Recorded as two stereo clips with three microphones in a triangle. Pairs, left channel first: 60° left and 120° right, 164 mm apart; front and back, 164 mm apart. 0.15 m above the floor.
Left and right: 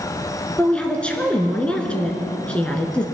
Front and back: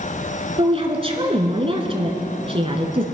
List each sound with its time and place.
0.6 s a woman speaking: 140° left, 1.8 m